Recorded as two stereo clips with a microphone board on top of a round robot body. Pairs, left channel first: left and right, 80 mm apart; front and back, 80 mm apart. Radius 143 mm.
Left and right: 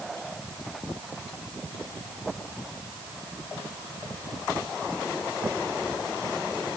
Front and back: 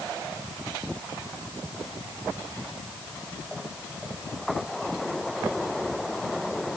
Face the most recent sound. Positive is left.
No sound to turn to.